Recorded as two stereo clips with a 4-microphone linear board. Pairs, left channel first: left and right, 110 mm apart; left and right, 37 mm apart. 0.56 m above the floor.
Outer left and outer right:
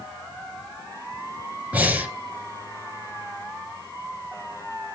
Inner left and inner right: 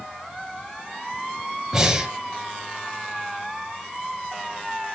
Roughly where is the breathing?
Centre.